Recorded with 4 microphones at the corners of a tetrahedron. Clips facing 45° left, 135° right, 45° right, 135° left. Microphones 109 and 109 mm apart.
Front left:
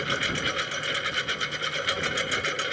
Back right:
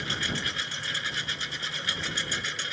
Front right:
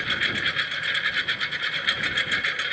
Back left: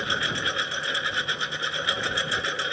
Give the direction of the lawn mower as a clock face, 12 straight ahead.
10 o'clock.